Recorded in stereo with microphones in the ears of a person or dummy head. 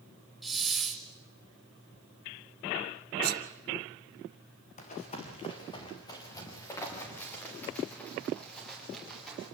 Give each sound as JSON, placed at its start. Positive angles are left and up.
{"t": 0.4, "sound": "a hiss", "side_deg": 0, "distance_m": 1.4}
{"t": 3.2, "sound": "a sneeze", "side_deg": -55, "distance_m": 1.4}
{"t": 4.8, "sound": "running footsteps", "side_deg": 45, "distance_m": 4.5}